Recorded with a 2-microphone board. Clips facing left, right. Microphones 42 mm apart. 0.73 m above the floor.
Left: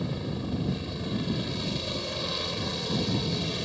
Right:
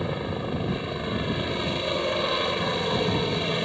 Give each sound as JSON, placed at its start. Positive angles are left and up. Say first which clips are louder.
{"t": 0.0, "sound": "a helicopter", "louder": "right 4 dB", "side_deg": -40}